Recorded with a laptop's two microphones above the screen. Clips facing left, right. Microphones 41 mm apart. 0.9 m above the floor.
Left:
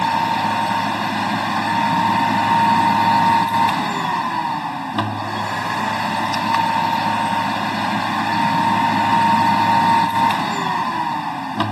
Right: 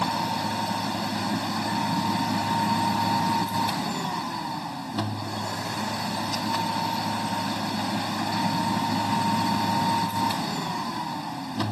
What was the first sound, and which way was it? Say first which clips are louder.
A machine running: left 9 dB; 55° left (ahead or behind).